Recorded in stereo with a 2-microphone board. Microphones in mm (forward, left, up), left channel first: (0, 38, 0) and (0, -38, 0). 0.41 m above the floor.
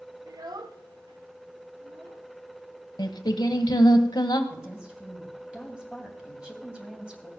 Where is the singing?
65° left (ahead or behind), 1.0 m.